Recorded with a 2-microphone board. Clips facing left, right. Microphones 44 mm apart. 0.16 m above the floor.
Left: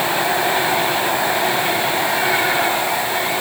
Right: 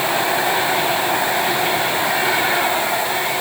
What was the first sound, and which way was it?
Only background noise.